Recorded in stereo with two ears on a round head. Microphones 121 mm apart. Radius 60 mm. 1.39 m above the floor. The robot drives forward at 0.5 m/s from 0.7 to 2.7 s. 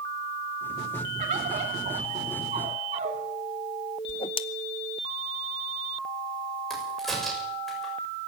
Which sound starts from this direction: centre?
A crack, at 6.7 s.